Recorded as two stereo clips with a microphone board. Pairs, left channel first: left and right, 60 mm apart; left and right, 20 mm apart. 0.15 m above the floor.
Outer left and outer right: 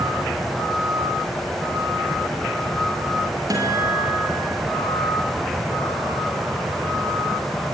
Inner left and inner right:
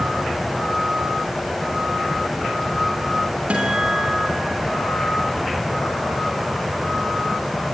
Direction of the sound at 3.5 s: 85° right.